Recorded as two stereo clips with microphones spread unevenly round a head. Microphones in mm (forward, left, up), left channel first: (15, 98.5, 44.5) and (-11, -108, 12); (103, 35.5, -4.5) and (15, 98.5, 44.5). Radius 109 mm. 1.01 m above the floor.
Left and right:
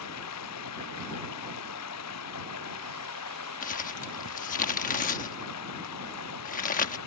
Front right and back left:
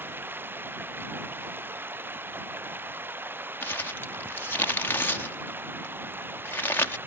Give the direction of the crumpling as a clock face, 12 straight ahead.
11 o'clock.